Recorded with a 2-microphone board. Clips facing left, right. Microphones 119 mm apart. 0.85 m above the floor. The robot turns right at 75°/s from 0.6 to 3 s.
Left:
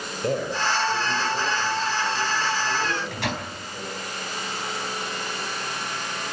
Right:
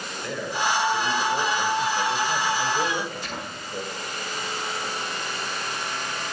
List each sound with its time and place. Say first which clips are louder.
0.2 s a man speaking: left 2 dB; 140° left, 5 m; by 3.8 s 40° right, 5 m
2.8 s a microwave: left 1 dB; 60° left (ahead or behind), 4 m; by 3.5 s 75° left (ahead or behind), 4 m